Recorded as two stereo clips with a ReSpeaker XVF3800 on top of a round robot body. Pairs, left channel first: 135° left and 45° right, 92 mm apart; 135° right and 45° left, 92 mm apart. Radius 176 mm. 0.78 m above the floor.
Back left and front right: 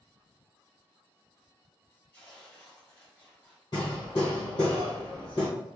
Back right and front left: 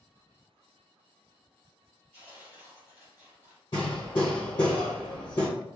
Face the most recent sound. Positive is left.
turn(degrees=180)